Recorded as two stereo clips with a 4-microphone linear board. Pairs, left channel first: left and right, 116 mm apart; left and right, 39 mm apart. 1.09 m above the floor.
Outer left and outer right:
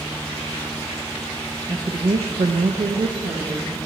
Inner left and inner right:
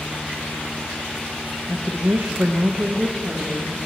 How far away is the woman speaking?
About 0.9 m.